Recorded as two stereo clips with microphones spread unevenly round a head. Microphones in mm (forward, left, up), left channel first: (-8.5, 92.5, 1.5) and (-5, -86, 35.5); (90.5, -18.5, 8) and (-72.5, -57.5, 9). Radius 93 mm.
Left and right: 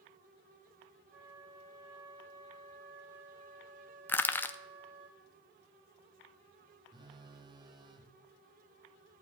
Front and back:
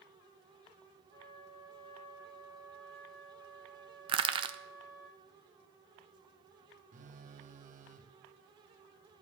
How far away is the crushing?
About 0.5 m.